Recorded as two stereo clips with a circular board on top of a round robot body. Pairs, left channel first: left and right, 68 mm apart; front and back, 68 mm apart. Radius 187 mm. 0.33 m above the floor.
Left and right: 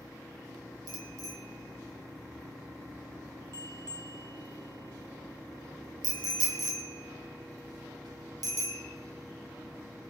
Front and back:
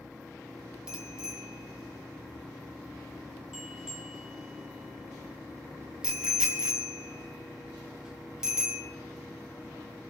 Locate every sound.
0.9 s a bicycle bell: 100° right, 3.5 m